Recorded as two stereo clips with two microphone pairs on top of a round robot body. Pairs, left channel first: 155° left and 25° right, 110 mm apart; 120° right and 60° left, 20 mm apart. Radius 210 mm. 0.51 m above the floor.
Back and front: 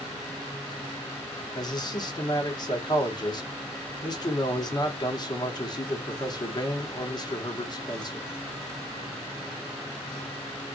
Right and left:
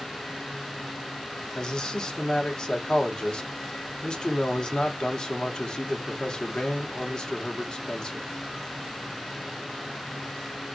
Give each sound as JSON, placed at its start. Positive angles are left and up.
{"t": 1.6, "sound": "a man speaking", "azimuth_deg": -165, "distance_m": 1.2}